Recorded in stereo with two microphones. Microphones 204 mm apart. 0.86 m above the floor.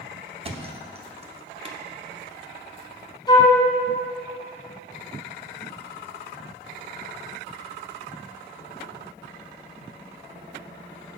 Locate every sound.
0.4 s a thud: 30° right (ahead or behind), 0.8 m
3.3 s a flute: 20° left (ahead or behind), 1.1 m